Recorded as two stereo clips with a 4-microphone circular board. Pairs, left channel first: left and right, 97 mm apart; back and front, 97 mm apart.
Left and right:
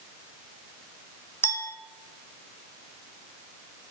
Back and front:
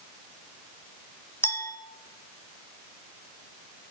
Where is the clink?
140° left, 1.0 m.